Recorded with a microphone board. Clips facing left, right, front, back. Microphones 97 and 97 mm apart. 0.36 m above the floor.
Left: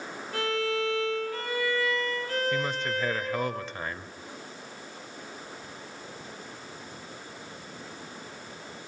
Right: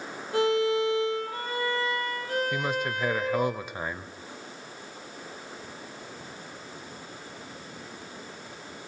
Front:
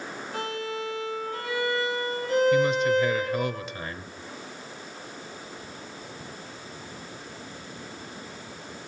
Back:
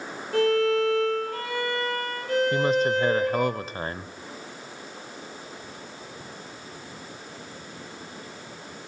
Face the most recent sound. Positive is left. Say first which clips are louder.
# even, front 1 dB
turn(degrees=-160)